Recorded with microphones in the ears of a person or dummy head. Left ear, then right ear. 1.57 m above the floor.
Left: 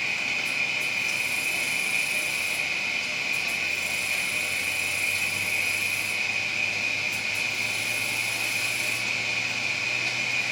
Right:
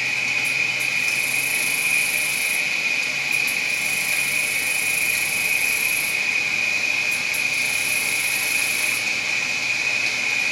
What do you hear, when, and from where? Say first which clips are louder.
0.0 s an insect: right 5 dB; 70° right (ahead or behind), 1.6 m